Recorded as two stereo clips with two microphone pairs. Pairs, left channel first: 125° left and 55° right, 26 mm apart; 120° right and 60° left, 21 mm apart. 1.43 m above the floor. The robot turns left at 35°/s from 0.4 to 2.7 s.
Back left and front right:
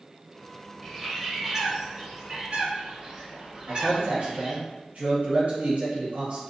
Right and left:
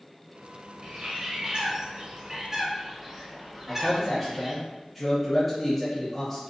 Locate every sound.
0.8 s a bird: 40° left, 0.8 m; by 4.6 s 25° right, 0.8 m
3.7 s a man speaking: 40° right, 0.8 m